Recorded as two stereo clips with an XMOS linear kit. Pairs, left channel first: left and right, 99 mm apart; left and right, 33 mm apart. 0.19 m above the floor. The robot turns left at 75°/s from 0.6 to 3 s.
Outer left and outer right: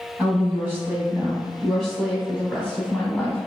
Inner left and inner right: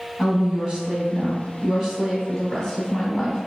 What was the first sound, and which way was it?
A woman speaking, 20° right (ahead or behind).